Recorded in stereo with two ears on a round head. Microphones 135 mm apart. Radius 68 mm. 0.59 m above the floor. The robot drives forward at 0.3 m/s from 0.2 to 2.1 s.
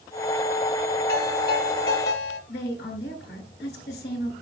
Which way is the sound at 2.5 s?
85° left.